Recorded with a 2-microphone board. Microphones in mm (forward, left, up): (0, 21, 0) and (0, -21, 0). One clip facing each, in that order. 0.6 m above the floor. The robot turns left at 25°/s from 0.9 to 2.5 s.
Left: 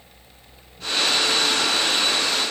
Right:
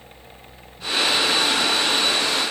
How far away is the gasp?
I don't hear a gasp.